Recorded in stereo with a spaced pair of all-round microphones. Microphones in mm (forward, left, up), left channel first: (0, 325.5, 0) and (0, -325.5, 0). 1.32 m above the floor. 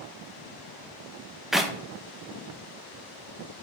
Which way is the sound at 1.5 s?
Centre (ahead or behind).